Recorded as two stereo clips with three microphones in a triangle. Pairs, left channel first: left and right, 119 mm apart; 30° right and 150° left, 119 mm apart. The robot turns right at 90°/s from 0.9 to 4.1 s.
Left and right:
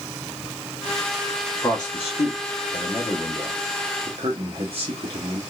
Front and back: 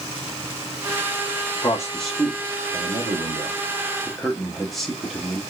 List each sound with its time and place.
1.6 s a man speaking: 20° left, 0.8 m; by 5.4 s 120° right, 0.8 m